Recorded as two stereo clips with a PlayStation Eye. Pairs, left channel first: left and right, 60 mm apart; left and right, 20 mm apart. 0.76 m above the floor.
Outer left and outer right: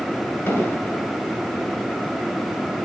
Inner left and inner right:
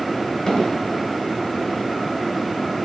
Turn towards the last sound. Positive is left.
turn(degrees=35)  # may be behind; listen again after turning